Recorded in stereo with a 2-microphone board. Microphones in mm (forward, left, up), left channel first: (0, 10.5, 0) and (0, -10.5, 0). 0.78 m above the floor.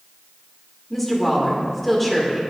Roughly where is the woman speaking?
Centre.